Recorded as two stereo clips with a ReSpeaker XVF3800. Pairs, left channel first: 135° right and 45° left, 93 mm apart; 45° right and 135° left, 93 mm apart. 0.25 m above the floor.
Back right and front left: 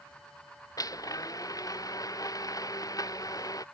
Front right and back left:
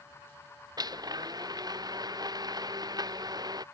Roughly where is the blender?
Behind.